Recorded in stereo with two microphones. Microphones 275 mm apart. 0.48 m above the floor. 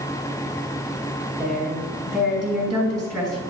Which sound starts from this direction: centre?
A woman speaking, at 1.4 s.